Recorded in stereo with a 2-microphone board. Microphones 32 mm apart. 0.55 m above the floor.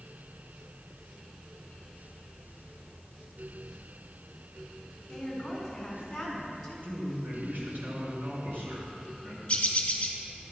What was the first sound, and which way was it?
A woman speaking, 5° left (ahead or behind).